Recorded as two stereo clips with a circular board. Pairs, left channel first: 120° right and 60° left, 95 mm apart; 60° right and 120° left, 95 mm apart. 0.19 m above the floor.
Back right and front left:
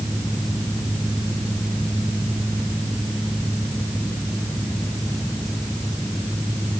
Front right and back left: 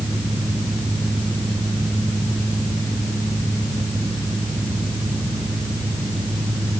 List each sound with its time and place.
Only background noise.